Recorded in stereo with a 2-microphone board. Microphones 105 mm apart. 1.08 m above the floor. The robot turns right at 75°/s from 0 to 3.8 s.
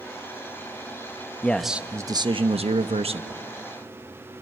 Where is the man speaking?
165° left, 1.0 m; by 3.4 s 45° right, 1.0 m.